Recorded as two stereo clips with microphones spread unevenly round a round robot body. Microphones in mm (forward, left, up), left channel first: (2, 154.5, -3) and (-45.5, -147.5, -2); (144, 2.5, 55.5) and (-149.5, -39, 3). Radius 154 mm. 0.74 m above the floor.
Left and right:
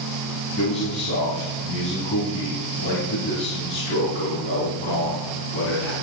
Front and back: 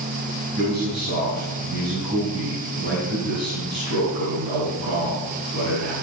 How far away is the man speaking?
About 5.5 m.